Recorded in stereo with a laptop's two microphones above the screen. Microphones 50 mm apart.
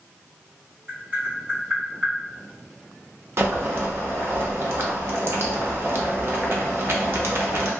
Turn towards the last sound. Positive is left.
turn(degrees=-55)  # may be behind; listen again after turning